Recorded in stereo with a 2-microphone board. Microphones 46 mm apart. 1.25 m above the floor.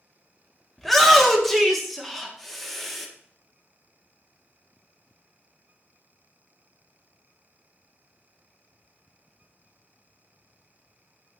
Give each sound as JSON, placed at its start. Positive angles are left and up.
{"t": 0.8, "sound": "a shout", "side_deg": 5, "distance_m": 0.6}